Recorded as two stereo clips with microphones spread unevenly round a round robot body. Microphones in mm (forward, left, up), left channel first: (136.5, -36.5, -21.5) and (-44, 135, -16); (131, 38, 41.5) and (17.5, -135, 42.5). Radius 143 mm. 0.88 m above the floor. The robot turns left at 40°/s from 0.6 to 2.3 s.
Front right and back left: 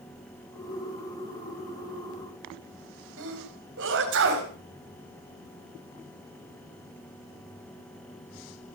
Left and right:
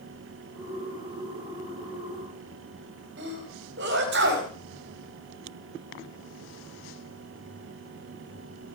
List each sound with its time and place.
3.2 s a sneeze: 170° right, 4 m